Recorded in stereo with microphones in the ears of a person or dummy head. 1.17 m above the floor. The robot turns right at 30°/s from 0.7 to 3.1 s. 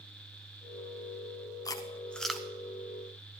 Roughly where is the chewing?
Left.